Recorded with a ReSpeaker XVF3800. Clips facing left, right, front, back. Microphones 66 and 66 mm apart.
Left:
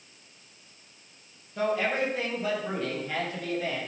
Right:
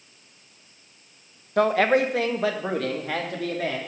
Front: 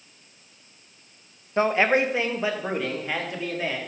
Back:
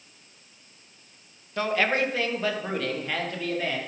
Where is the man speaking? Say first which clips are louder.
Right 7 dB, front 4 dB; 65° right, 0.8 m; by 3.8 s 80° right, 2.5 m.